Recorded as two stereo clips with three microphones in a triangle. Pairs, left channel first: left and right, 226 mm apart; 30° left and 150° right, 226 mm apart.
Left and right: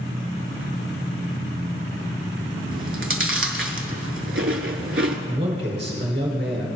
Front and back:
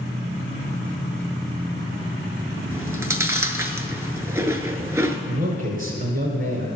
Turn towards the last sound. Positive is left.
turn(degrees=-135)